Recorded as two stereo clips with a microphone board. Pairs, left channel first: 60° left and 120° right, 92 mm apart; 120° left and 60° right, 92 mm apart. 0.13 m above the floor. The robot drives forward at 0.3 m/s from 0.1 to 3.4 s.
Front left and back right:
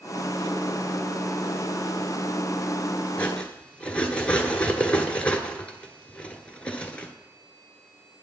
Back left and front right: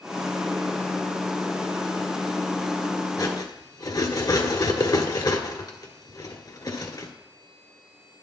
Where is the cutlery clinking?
130° left, 1.2 m.